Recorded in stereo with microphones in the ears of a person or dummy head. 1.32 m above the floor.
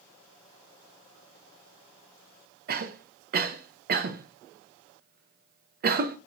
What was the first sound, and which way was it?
A cough, 50° right (ahead or behind).